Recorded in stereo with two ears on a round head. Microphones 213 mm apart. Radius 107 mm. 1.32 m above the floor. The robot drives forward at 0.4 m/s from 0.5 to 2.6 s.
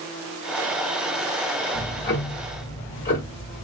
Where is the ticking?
50° left (ahead or behind), 1.4 m; by 3.6 s 45° left (ahead or behind), 1.5 m.